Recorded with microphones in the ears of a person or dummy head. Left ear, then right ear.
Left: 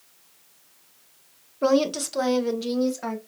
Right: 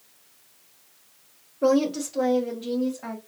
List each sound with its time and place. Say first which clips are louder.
1.6 s a woman speaking: even; 25° left (ahead or behind), 0.8 m; by 3.2 s 80° left, 1.4 m